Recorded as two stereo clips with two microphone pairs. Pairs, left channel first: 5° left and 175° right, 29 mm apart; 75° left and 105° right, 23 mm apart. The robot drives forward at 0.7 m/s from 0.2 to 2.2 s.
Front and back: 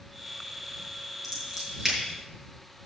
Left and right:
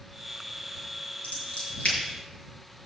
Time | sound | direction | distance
1.2 | scissors | 105° left | 6 m